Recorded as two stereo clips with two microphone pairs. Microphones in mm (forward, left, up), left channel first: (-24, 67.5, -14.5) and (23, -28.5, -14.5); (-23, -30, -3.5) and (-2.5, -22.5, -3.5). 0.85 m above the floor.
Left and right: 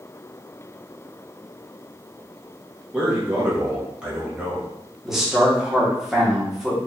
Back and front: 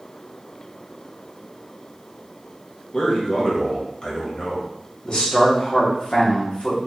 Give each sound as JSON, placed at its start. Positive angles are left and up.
{"t": 2.9, "sound": "a man speaking", "azimuth_deg": -140, "distance_m": 1.3}
{"t": 5.0, "sound": "a man speaking", "azimuth_deg": -150, "distance_m": 1.4}